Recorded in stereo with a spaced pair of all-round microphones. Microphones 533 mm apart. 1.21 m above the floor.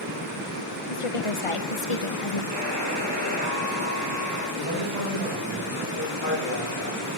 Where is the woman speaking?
75° left (ahead or behind), 1.3 m.